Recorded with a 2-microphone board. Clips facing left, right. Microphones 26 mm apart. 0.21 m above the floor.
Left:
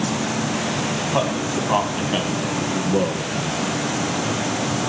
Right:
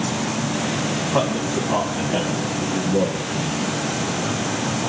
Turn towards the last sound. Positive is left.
turn(degrees=60)  # may be behind; listen again after turning